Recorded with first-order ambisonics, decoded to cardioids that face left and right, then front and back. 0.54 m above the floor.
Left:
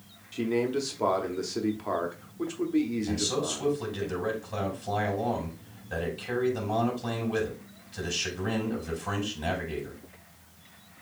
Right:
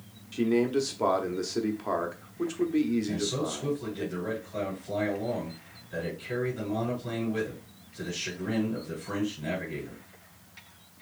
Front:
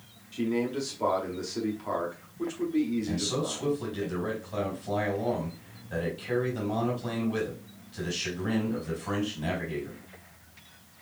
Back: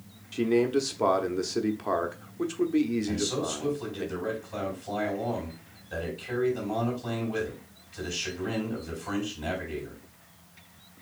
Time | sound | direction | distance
0.3 | a man speaking | 175° right | 0.7 m
3.1 | a man speaking | 80° left | 3.5 m